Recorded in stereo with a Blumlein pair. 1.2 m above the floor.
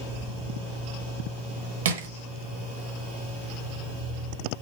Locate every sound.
1.9 s crushing: 60° right, 1.3 m